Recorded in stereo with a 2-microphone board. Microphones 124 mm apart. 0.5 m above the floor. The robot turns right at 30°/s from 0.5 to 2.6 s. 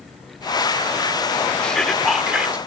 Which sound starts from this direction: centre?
Whispering, at 1.6 s.